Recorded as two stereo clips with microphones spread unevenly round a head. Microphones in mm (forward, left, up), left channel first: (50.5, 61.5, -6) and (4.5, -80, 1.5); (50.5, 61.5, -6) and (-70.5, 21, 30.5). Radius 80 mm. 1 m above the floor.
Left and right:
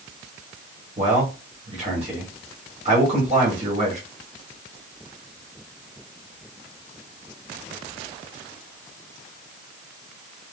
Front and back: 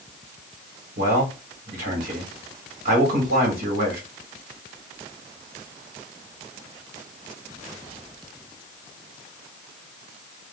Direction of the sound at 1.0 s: 160° right.